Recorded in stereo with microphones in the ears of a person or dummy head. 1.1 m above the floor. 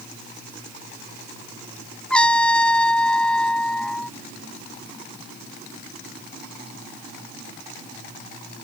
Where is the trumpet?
Centre (ahead or behind).